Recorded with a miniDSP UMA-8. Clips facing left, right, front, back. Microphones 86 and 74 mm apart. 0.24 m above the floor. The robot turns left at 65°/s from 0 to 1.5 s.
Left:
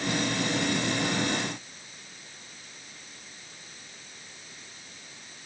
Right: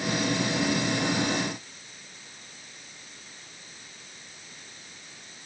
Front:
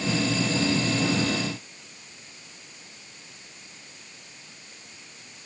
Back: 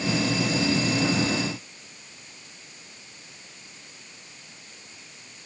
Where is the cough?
I don't hear a cough.